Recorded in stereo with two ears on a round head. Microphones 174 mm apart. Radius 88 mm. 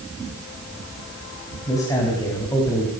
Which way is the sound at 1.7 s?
15° left (ahead or behind).